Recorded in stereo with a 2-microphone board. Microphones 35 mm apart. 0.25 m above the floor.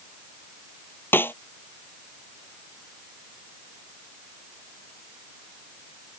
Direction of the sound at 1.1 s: 75° left (ahead or behind).